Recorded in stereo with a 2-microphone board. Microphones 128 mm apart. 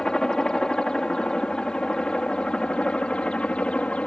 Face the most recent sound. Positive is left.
turn(degrees=10)  # may be behind; listen again after turning